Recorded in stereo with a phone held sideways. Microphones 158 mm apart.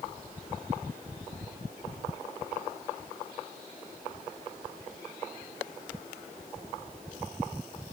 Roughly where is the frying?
I don't hear frying.